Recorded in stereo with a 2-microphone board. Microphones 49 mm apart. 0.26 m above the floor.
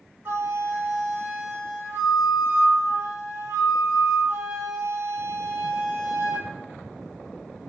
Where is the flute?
40° right (ahead or behind), 3.5 m.